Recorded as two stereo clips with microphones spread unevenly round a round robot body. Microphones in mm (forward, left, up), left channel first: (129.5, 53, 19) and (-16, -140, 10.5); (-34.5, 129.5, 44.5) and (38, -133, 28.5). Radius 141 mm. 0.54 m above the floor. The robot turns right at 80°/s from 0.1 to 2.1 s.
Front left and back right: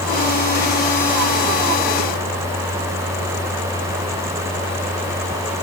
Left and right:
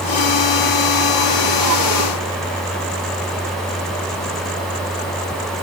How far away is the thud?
No thud in this recording.